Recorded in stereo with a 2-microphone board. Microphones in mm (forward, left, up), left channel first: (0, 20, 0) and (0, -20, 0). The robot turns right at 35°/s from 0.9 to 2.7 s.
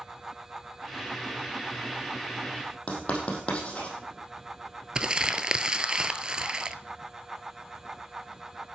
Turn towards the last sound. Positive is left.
turn(degrees=-20)  # may be behind; listen again after turning